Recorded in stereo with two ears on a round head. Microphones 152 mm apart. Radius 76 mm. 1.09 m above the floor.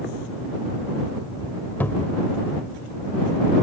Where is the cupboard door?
10° left (ahead or behind).